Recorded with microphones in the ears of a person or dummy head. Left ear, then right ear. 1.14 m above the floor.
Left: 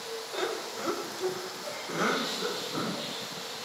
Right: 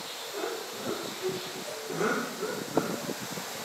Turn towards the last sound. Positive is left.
turn(degrees=25)  # may be behind; listen again after turning